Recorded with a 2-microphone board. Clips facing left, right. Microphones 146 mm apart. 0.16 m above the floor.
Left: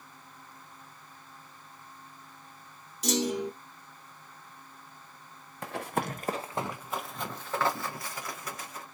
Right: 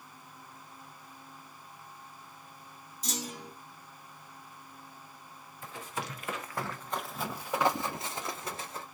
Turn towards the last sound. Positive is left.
turn(degrees=-30)  # may be behind; listen again after turning